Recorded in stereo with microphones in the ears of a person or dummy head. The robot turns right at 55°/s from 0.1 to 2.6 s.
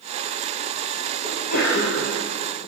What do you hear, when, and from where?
1.2 s a sneeze: 35° left, 1.3 m; by 2.1 s 85° left, 1.3 m